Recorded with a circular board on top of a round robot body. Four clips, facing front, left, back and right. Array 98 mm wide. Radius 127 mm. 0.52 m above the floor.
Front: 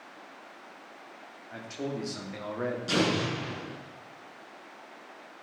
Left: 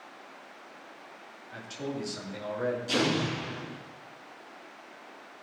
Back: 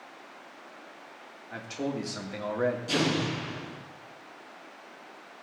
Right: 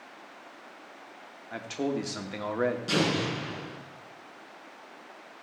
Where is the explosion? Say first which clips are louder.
Right 1 dB, even; 50° right, 5 m.